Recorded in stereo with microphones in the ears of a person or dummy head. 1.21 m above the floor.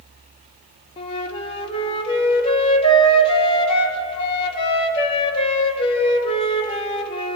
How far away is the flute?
About 1.8 m.